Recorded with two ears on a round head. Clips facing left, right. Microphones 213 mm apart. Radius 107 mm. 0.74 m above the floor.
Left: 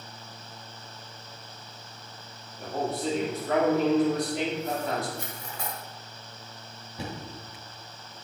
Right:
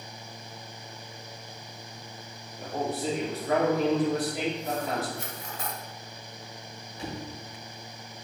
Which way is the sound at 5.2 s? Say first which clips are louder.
Even; 75° left (ahead or behind).